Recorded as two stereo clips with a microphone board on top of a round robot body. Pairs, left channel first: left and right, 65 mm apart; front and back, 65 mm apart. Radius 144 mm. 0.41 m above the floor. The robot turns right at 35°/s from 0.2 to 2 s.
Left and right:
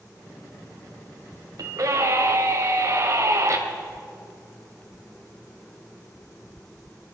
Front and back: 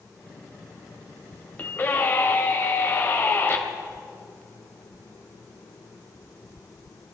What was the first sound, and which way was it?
A scream, 65° right.